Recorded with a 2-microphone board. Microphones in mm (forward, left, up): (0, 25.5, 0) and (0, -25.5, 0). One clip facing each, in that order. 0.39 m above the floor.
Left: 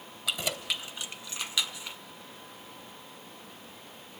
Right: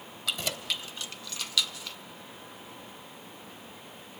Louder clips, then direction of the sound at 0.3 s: Left 1 dB; 10° left (ahead or behind).